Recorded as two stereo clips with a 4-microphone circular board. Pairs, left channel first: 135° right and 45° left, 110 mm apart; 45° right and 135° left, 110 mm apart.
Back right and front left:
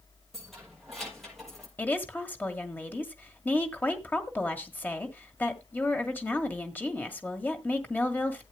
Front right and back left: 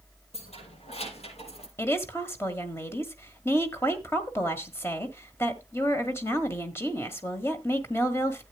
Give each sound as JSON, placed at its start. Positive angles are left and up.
{"t": 0.3, "sound": "keys jangling", "azimuth_deg": -45, "distance_m": 7.0}
{"t": 1.8, "sound": "a woman speaking", "azimuth_deg": -80, "distance_m": 1.5}